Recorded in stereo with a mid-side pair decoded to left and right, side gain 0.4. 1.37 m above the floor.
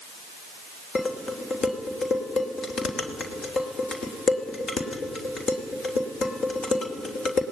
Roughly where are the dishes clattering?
Ahead left.